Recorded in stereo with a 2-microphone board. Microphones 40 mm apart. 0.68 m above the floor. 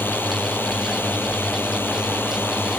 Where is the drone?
65° left (ahead or behind); by 2.8 s 70° left (ahead or behind).